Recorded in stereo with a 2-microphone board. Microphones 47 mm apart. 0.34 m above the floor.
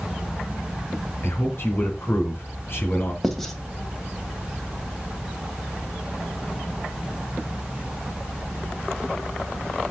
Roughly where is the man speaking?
Left.